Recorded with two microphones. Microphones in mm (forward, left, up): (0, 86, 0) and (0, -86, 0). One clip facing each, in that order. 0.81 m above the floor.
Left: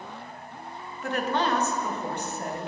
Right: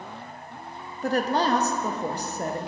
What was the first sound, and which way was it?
A woman speaking, 35° right (ahead or behind).